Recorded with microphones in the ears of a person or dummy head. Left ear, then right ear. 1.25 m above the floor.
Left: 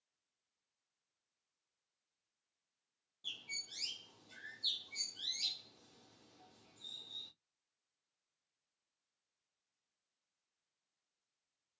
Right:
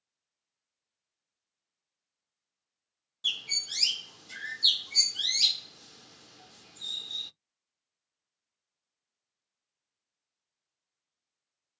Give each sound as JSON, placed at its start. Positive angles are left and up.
{"t": 3.2, "sound": "a bird", "side_deg": -55, "distance_m": 0.5}